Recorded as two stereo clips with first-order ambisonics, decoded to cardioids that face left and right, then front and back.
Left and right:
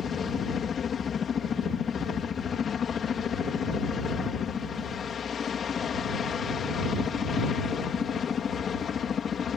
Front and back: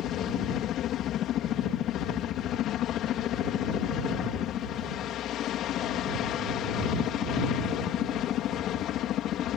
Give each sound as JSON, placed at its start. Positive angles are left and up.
{"t": 0.0, "sound": "a helicopter", "azimuth_deg": 30}